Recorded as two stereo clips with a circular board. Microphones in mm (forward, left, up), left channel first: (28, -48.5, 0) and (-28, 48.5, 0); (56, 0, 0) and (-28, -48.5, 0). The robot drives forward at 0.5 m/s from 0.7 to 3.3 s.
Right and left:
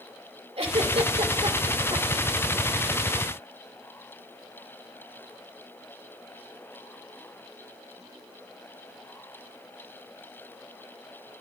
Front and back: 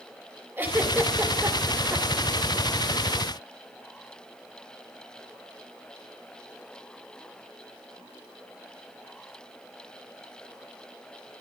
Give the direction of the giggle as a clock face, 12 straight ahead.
7 o'clock.